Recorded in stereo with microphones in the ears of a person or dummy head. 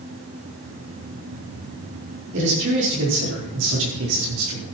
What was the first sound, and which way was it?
A man speaking, 65° right (ahead or behind).